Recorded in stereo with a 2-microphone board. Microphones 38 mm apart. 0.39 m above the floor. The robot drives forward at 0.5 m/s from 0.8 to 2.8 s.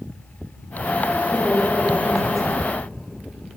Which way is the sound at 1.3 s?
Centre (ahead or behind).